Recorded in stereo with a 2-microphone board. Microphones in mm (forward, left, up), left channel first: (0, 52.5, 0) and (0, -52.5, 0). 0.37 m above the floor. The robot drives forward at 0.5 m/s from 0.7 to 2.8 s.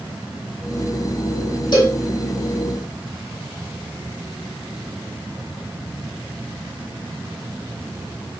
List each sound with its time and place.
1.7 s a cowbell: 45° left (ahead or behind), 1.3 m